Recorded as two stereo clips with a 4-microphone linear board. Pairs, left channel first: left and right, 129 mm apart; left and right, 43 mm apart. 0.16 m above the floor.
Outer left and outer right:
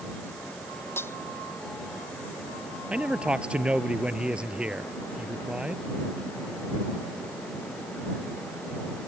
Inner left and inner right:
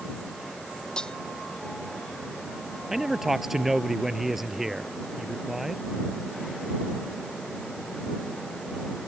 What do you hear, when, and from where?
1.0 s cutlery clinking: 20° left (ahead or behind)
2.9 s a man speaking: 5° right (ahead or behind)